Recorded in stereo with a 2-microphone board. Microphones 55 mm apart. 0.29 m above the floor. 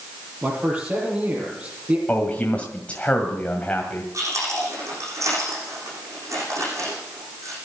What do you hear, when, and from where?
0.4 s a man speaking: 35° right (ahead or behind), 7 m
2.1 s a man speaking: 25° left (ahead or behind), 2 m
4.1 s chewing: 65° right (ahead or behind), 9.5 m